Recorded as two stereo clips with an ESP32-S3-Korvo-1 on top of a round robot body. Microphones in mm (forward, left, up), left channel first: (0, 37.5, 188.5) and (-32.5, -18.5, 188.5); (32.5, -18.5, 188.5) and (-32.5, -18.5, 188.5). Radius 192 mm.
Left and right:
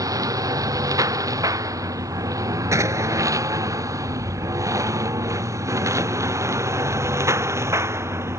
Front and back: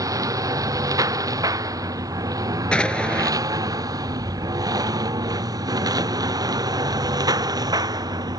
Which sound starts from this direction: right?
An explosion, at 2.7 s.